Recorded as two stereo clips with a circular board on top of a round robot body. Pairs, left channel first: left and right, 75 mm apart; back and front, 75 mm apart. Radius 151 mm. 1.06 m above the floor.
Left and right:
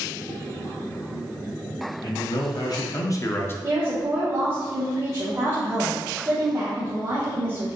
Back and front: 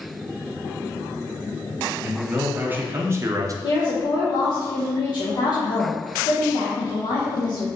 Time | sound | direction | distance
2.0 | a man speaking | 75° left | 1.3 m
3.6 | a woman speaking | 155° right | 0.8 m